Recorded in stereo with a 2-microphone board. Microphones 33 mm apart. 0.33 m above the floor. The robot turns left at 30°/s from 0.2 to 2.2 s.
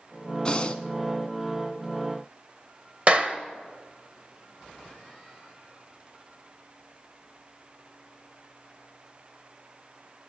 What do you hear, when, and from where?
0.5 s breathing: 25° left (ahead or behind), 0.8 m; by 0.8 s 35° left (ahead or behind), 0.8 m
3.1 s a clap: 35° right (ahead or behind), 0.9 m